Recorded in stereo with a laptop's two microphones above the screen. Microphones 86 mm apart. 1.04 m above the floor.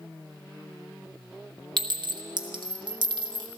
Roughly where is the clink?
Right.